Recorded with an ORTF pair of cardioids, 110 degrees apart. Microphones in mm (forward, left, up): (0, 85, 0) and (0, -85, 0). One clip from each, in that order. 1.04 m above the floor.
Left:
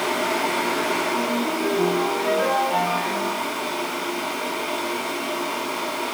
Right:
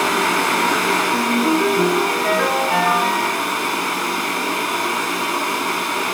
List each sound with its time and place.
0.0 s a fan: 65° right, 6.5 m
1.1 s a ringtone: 55° right, 9 m